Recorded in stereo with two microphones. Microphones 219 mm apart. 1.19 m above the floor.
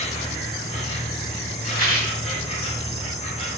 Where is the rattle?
35° left (ahead or behind), 1.8 m.